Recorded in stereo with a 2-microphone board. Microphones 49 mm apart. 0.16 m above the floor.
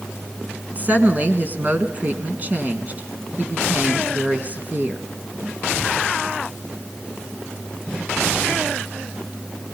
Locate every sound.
0.7 s a woman speaking: 35° right (ahead or behind), 1.8 m